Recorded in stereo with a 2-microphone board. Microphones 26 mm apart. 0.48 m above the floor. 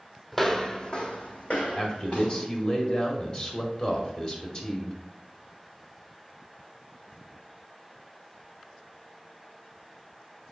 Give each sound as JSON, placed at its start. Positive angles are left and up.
{"t": 0.3, "sound": "footsteps", "side_deg": 5, "distance_m": 0.9}
{"t": 1.8, "sound": "a man speaking", "side_deg": 30, "distance_m": 1.7}